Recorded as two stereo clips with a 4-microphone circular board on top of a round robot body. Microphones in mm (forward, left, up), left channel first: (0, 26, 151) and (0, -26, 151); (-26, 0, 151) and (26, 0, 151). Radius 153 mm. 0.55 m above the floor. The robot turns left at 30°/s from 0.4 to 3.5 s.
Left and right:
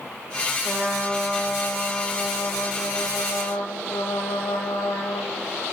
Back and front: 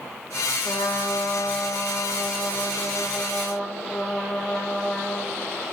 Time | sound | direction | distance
0.6 | a trumpet | 165° right | 0.6 m